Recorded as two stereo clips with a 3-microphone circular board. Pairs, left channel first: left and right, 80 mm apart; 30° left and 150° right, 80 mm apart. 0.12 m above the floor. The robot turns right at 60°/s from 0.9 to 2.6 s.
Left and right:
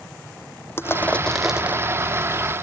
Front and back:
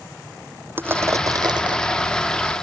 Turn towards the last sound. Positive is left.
turn(degrees=-110)